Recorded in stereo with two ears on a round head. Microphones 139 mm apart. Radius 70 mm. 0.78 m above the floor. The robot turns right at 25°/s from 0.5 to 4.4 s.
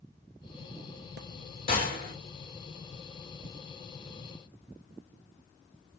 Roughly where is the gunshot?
Left.